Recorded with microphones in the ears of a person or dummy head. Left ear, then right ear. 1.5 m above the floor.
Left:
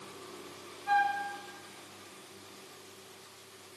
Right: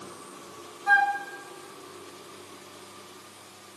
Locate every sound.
0.9 s a flute: 45° right (ahead or behind), 1.0 m